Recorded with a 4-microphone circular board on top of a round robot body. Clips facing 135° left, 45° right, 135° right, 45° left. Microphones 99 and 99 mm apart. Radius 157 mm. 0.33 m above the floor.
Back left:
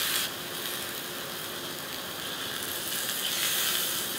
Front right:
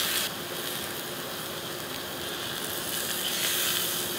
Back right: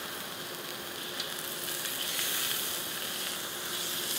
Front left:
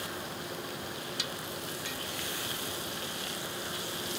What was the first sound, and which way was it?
Only background noise.